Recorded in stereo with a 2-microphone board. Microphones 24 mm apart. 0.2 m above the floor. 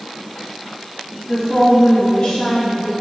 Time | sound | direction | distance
1.3 | a woman speaking | 25° left (ahead or behind) | 1.0 m